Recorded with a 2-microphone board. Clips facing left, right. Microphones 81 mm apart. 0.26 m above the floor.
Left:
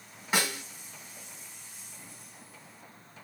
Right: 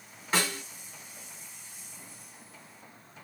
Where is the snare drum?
15° left (ahead or behind), 1.4 m.